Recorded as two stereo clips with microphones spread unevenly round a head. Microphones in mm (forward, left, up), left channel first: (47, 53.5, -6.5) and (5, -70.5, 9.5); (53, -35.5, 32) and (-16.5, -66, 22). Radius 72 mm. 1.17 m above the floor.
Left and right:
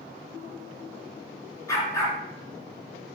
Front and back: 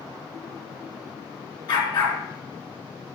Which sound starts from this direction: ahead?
A dog barking, at 1.7 s.